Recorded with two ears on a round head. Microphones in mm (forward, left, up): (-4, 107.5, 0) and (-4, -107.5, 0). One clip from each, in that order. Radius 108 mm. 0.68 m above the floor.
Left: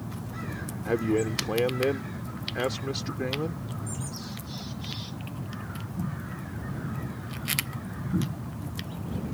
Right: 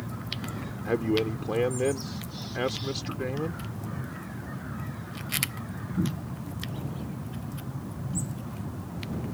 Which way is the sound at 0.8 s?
5° left (ahead or behind).